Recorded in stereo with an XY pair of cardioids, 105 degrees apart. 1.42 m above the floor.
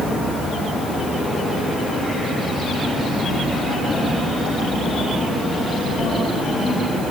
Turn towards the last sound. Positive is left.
No sound to turn to.